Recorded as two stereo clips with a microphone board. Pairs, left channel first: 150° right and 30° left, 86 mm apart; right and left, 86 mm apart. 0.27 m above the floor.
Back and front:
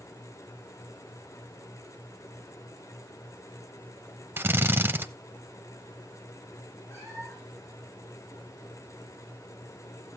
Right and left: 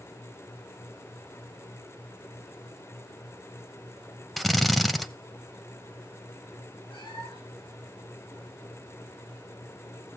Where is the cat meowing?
90° right, 7.5 m.